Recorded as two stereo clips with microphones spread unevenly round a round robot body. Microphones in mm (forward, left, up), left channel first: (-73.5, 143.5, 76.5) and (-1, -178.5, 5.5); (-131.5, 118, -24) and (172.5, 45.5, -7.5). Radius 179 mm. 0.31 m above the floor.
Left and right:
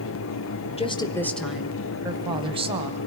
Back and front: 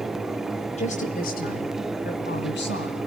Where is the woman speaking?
Straight behind, 1.3 m; by 3.0 s 140° right, 2.5 m.